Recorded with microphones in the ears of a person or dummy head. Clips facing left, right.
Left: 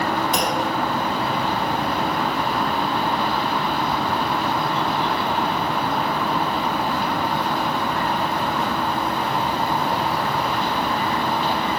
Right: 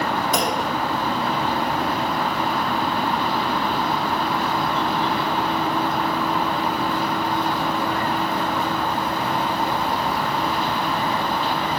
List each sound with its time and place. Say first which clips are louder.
0.3 s a clunk: even; 80° right, 3 m